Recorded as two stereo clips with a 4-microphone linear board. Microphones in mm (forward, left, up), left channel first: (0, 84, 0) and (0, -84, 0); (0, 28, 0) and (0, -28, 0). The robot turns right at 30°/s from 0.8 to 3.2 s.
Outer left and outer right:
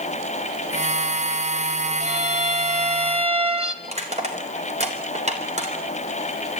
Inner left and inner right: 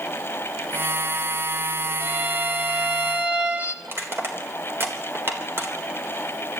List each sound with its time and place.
2.0 s a violin: 90° right, 1.3 m; by 3.7 s 55° right, 1.3 m
3.8 s crushing: 45° right (ahead or behind), 3.5 m